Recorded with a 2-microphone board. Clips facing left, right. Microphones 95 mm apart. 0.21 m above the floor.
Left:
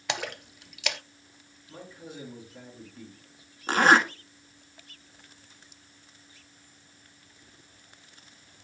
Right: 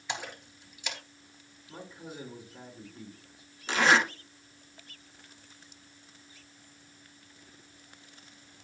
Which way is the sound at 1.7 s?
15° right (ahead or behind).